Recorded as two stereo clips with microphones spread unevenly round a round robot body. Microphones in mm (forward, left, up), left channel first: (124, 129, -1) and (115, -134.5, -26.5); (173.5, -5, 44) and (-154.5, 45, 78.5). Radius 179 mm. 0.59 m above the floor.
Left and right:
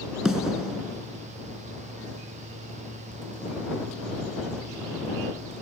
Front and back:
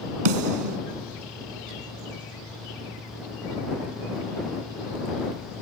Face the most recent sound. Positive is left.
turn(degrees=180)